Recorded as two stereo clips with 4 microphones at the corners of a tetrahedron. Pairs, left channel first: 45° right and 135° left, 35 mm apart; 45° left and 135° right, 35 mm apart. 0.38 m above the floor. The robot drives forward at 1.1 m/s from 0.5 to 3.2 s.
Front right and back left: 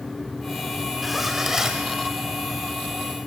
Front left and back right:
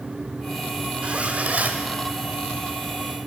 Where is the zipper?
135° right, 1.5 m; by 1.9 s 155° right, 2 m.